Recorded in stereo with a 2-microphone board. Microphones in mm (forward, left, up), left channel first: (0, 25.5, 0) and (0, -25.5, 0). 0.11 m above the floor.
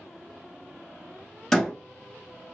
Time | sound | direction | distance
1.5 | a door slam | 10° left (ahead or behind) | 1.7 m